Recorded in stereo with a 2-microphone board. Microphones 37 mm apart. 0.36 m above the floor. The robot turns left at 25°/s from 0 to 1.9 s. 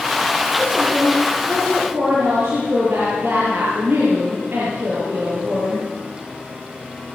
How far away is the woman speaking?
About 8.5 m.